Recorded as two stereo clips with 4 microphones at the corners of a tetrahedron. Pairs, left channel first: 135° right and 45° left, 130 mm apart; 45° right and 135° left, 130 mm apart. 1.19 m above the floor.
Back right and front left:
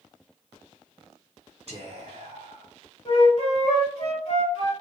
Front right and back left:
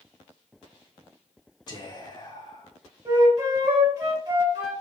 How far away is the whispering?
About 1.8 m.